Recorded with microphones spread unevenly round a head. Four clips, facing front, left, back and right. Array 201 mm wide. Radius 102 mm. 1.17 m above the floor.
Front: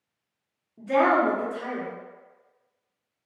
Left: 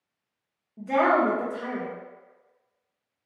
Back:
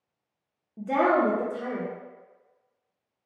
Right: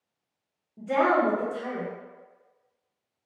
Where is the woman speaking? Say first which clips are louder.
Left 1 dB, front 1 dB; 175° left, 1.3 m.